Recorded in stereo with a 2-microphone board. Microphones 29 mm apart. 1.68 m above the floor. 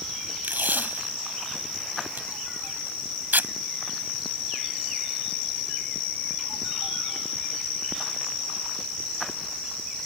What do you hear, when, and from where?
0.4 s tape being pulled: 75° right (ahead or behind)